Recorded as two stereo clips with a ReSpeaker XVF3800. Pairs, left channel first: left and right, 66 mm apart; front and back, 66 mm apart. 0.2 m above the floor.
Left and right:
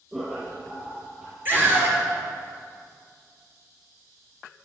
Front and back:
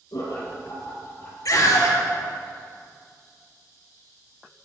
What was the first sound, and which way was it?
Laughter, 10° right.